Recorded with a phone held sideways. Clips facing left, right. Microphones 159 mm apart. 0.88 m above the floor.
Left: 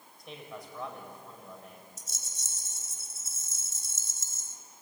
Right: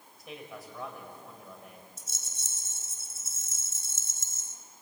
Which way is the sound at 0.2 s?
5° right (ahead or behind).